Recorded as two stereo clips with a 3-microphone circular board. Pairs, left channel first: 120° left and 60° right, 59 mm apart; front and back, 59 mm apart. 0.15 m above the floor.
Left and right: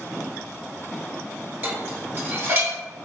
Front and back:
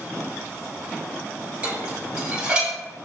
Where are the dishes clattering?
110° right, 1.7 m.